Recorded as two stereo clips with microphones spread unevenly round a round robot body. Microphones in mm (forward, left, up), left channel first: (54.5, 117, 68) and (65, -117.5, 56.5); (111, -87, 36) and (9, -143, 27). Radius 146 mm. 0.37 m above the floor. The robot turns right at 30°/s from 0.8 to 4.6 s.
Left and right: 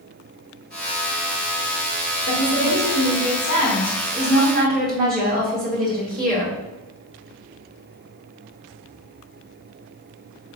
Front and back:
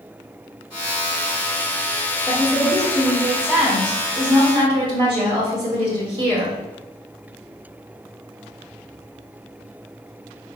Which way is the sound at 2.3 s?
115° left.